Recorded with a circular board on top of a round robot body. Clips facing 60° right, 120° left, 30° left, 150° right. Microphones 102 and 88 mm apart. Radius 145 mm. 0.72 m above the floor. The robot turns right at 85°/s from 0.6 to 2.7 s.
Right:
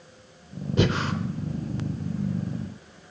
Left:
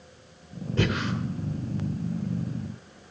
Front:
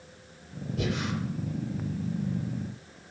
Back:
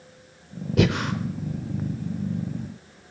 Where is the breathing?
135° right, 0.6 m; by 1.1 s 105° right, 0.6 m.